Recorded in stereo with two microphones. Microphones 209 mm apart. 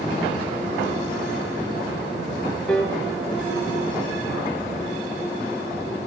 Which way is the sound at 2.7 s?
5° left (ahead or behind).